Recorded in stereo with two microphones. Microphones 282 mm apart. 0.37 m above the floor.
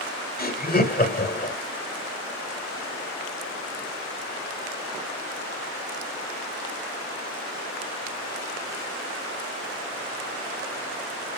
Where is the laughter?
35° left (ahead or behind), 1.5 m.